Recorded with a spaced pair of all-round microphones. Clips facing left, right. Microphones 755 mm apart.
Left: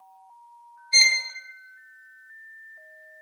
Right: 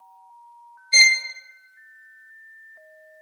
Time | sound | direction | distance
0.9 | a violin | 80° right | 0.5 m